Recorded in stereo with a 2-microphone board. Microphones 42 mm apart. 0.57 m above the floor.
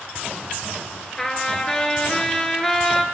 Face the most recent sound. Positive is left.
turn(degrees=10)  # may be behind; listen again after turning